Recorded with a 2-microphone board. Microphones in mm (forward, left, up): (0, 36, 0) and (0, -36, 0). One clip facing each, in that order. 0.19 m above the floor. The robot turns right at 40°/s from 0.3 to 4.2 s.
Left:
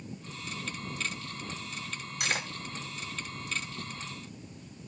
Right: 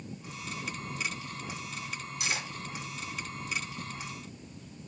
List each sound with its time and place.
2.2 s cutlery clinking: 55° left (ahead or behind), 1.3 m; by 2.5 s 45° left (ahead or behind), 1.3 m